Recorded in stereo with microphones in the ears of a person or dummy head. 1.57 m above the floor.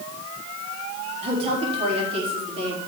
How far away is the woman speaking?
About 4.5 m.